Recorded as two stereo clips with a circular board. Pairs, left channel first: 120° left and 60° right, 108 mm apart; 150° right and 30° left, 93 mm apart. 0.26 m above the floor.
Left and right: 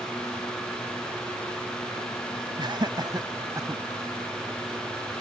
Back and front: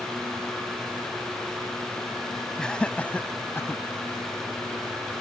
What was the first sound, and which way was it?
Laughter, 70° right.